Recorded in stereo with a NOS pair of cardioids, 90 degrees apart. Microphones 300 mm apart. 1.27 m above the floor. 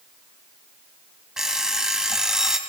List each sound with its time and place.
1.4 s an alarm clock: straight ahead, 3.5 m